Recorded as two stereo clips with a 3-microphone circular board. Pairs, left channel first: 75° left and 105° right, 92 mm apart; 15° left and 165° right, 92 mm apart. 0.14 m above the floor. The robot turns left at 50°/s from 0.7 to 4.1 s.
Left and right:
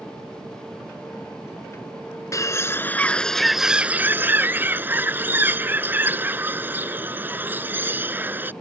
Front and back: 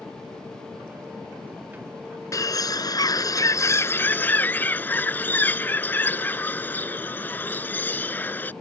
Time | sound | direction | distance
2.3 | a bird | 45° left | ?